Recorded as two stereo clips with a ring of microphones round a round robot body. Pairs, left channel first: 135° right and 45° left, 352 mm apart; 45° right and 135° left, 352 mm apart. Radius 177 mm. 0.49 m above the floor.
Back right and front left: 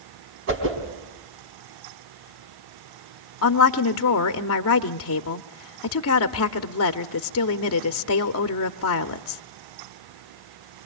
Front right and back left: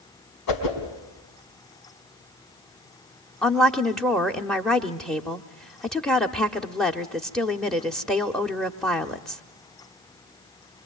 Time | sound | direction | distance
0.5 | a whoosh | 10° right | 4 m
3.4 | a woman speaking | 130° right | 0.8 m